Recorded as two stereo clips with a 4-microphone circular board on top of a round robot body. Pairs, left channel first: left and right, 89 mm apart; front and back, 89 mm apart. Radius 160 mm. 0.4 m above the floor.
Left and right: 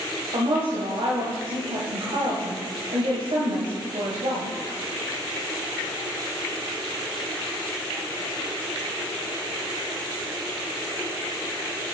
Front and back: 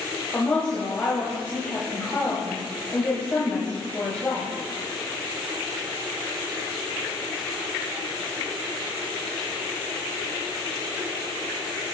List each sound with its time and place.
0.3 s a woman speaking: 70° right, 3 m